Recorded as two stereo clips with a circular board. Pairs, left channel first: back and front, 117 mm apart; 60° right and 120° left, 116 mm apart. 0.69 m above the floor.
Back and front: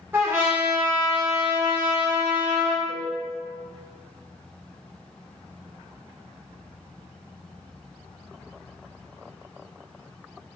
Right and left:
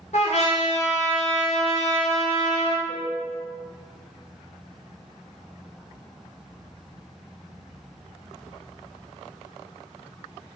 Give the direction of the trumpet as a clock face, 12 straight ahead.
2 o'clock.